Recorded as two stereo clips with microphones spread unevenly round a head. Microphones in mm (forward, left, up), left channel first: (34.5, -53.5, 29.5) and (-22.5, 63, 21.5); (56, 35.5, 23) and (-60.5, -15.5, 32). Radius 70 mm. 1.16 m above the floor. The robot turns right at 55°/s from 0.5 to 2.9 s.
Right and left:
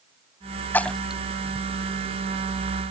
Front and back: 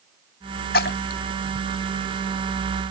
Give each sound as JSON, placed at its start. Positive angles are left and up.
{"t": 0.7, "sound": "a splash", "azimuth_deg": 10}